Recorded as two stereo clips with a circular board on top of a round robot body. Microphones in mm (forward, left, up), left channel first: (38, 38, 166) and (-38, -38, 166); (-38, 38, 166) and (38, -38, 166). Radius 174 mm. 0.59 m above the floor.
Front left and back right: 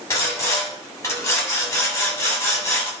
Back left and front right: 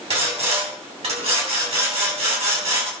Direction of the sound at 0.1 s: 15° right.